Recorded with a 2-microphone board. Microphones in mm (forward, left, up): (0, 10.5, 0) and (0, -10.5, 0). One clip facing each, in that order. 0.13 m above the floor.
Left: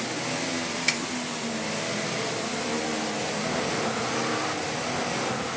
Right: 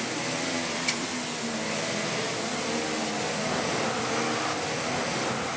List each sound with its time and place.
0.9 s a finger snap: 40° left (ahead or behind), 1.6 m